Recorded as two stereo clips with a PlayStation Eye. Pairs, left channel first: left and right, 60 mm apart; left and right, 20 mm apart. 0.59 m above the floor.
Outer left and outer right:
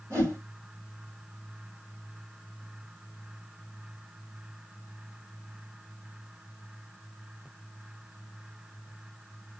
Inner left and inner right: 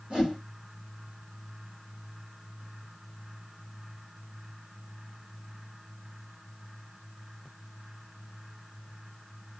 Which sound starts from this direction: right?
A whoosh, at 0.1 s.